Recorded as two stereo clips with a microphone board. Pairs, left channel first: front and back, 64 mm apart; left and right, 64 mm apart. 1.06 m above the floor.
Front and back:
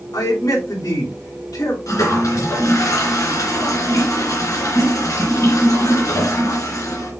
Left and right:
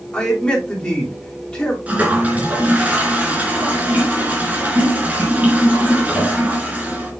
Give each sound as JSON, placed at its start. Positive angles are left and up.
{"t": 0.1, "sound": "a man speaking", "azimuth_deg": 15, "distance_m": 3.0}
{"t": 1.9, "sound": "a toilet flushing", "azimuth_deg": -25, "distance_m": 2.5}